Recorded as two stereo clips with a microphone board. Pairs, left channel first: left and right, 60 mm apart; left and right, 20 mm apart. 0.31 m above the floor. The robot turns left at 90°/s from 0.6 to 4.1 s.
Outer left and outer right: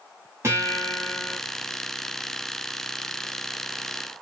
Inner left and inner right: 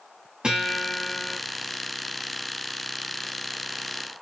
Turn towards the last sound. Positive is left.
turn(degrees=-30)